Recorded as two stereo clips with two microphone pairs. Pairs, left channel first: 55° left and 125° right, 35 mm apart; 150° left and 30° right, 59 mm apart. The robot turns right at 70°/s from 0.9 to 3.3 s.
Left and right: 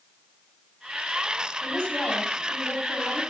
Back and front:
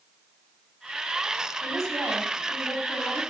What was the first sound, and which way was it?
A woman speaking, 15° right.